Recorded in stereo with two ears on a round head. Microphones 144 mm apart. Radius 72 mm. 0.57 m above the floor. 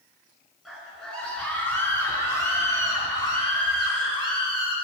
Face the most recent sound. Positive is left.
turn(degrees=35)  # may be behind; listen again after turning